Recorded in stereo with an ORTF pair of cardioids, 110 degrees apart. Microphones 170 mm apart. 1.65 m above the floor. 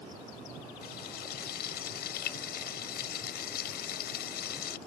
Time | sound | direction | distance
0.8 | frying | 65° left | ?